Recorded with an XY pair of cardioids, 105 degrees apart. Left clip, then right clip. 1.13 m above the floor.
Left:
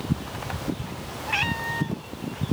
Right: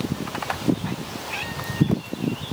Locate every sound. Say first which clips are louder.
1.3 s a cat meowing: left 6 dB; 45° left